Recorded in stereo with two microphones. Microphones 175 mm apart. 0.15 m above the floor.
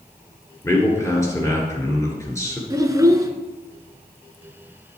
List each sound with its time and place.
0.6 s a man speaking: 20° left (ahead or behind), 2 m
2.7 s a child speaking: 20° right (ahead or behind), 1.0 m